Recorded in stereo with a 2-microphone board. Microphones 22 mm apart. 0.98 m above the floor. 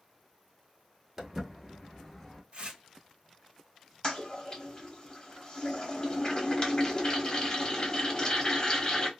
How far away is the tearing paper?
About 1.2 m.